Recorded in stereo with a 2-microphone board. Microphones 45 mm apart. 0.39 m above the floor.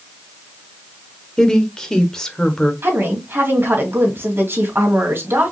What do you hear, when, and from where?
1.4 s a woman speaking: 15° left (ahead or behind), 1.0 m
2.8 s a woman speaking: 55° right (ahead or behind), 2.5 m